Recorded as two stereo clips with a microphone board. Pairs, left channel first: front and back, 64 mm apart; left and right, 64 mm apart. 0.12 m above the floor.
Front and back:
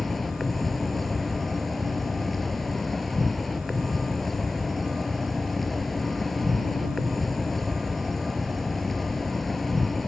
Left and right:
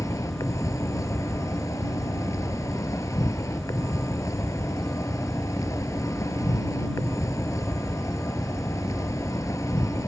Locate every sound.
0.0 s an insect: 85° left